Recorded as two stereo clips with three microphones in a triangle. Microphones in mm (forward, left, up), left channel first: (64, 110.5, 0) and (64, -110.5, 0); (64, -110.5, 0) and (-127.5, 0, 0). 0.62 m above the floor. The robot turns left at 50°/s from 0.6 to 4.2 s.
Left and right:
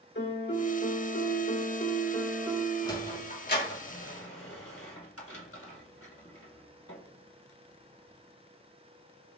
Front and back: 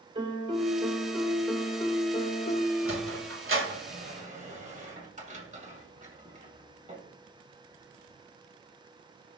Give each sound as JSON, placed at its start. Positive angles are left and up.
{"t": 0.1, "sound": "a piano", "azimuth_deg": 90, "distance_m": 1.5}
{"t": 2.9, "sound": "a sliding door", "azimuth_deg": 165, "distance_m": 2.0}